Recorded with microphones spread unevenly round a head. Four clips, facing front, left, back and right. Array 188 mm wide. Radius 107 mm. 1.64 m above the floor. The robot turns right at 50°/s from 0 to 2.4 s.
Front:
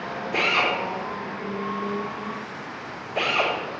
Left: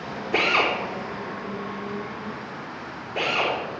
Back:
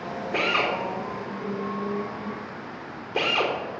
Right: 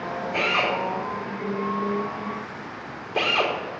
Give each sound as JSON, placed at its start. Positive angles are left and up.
{"t": 0.3, "sound": "a drill", "azimuth_deg": 85, "distance_m": 4.5}